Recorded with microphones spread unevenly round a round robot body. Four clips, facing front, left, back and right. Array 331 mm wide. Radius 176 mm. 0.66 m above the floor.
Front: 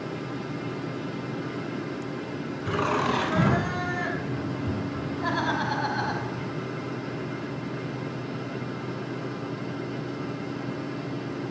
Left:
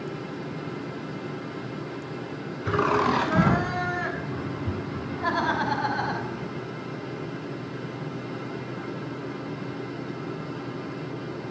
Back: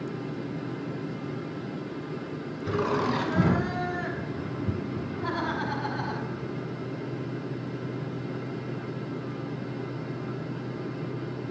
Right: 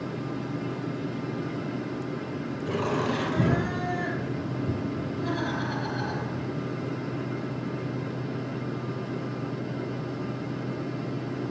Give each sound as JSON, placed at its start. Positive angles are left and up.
{"t": 2.6, "sound": "laughter", "azimuth_deg": 65, "distance_m": 7.0}